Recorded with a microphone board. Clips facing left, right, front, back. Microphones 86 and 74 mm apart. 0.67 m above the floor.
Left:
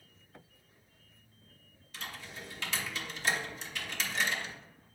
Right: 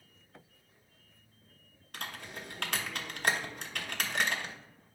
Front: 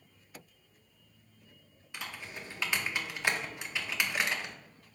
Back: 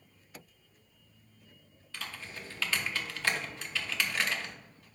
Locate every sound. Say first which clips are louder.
1.9 s typing on a keyboard: right 2 dB, even; 70° right, 0.6 m